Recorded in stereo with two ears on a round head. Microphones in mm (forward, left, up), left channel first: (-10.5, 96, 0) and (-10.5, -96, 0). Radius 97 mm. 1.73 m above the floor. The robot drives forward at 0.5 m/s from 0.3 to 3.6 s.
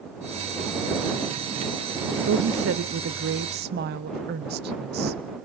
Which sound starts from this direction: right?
A woman speaking, at 2.3 s.